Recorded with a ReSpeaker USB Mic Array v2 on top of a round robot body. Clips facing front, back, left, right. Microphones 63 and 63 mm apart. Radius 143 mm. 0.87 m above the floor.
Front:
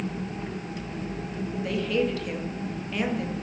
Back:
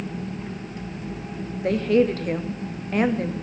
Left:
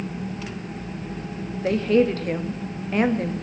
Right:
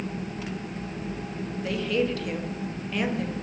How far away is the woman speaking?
About 1.7 m.